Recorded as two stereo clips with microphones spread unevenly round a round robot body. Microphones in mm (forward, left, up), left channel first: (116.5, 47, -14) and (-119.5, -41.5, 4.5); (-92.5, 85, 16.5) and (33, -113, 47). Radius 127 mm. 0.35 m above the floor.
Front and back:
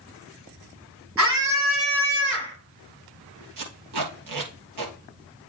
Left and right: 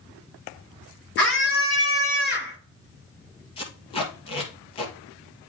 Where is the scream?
165° left, 6 m.